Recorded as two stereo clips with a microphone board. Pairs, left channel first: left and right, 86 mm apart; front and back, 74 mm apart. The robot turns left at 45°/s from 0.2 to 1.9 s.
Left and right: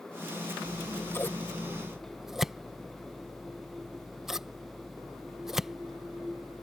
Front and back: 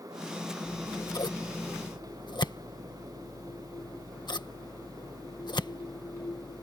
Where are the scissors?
50° left; by 6.6 s 5° right.